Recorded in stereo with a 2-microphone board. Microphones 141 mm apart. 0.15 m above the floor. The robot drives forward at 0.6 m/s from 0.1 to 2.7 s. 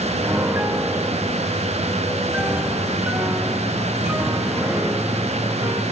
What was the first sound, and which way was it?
A piano, 15° right (ahead or behind).